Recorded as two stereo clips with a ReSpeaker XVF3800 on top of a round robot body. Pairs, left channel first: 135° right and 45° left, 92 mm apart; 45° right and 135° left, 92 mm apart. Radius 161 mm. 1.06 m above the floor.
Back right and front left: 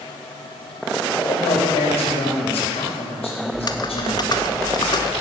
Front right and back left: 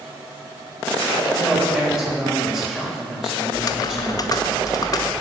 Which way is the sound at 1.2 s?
140° right.